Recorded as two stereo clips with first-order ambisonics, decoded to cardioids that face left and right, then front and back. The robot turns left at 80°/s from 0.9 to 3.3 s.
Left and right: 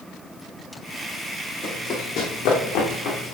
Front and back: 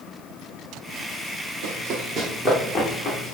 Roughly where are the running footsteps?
Behind.